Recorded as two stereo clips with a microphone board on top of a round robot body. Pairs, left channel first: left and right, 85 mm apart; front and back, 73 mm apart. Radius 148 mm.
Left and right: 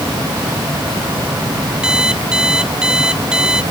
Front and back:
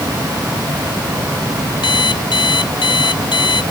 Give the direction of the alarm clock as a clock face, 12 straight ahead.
12 o'clock.